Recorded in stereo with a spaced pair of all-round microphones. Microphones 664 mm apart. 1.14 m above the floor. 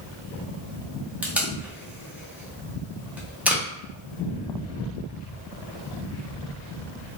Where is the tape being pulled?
Centre (ahead or behind), 0.6 m.